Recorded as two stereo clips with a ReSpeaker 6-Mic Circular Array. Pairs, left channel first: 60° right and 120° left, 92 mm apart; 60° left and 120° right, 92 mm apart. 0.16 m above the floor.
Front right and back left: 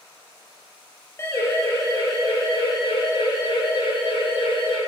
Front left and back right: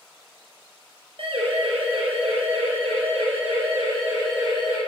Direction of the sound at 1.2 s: 125° right.